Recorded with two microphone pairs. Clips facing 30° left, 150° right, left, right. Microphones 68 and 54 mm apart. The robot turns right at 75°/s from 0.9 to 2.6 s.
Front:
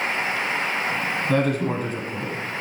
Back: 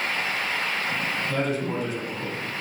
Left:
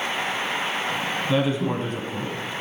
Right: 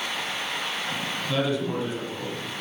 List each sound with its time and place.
1.3 s a woman speaking: 20° left, 1.9 m; by 2.3 s 100° left, 1.9 m